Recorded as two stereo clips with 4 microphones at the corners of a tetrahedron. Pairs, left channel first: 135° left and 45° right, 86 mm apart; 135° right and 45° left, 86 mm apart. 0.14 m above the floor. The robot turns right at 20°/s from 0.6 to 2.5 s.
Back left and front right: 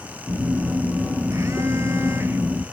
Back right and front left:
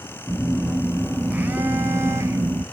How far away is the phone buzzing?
About 0.5 m.